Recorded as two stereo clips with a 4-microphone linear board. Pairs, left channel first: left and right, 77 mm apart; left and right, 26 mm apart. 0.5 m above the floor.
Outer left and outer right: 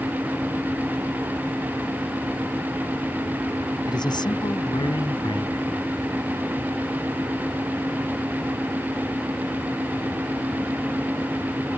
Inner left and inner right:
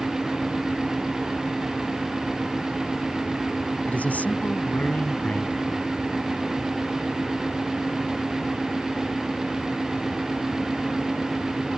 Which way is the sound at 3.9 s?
70° left (ahead or behind).